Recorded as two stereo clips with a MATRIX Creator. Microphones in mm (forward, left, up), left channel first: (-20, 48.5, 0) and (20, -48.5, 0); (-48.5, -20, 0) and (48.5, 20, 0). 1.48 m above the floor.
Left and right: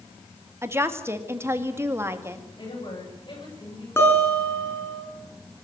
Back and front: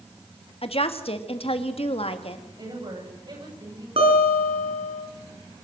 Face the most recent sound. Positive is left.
turn(degrees=45)